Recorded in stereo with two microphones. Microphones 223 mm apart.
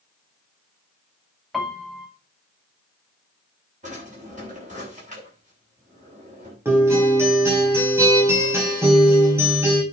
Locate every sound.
1.5 s a piano: centre (ahead or behind), 2 m
3.8 s a drawer: 35° right (ahead or behind), 7.5 m
6.7 s a guitar: 10° right (ahead or behind), 5 m